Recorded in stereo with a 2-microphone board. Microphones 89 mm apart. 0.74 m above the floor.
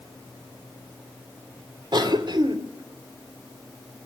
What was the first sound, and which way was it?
A cough, 55° right (ahead or behind).